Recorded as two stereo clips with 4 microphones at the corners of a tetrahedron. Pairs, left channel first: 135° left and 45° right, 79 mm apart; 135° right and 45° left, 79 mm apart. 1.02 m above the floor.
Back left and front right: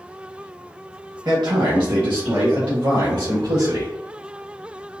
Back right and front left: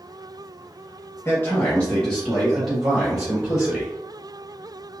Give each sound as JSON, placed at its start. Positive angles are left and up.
{"t": 1.2, "sound": "a man speaking", "azimuth_deg": -80, "distance_m": 1.0}